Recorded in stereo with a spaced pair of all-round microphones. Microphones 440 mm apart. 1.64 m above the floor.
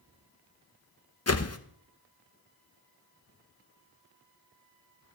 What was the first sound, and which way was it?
A whoosh, 35° left (ahead or behind).